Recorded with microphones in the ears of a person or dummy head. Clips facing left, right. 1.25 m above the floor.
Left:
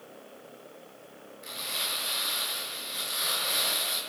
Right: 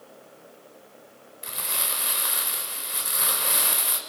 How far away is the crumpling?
About 3.5 m.